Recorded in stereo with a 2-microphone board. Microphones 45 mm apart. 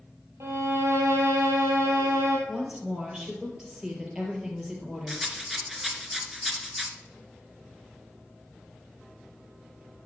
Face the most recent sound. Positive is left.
turn(degrees=-5)  # may be behind; listen again after turning